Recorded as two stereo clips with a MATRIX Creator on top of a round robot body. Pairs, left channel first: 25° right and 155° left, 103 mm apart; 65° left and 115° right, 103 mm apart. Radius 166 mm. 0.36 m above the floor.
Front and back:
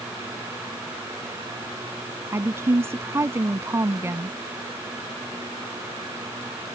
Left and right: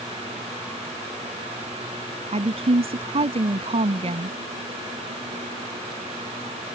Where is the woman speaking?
135° right.